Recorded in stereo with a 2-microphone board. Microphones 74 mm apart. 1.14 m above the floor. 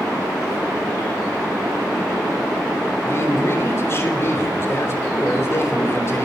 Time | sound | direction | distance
3.0 | a man speaking | 40° left (ahead or behind) | 4 m